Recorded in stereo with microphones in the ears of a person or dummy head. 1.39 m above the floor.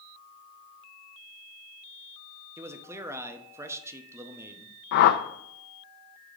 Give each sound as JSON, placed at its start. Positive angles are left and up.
{"t": 2.6, "sound": "a man speaking", "side_deg": -20, "distance_m": 0.6}
{"t": 4.9, "sound": "a whoosh", "side_deg": 55, "distance_m": 0.5}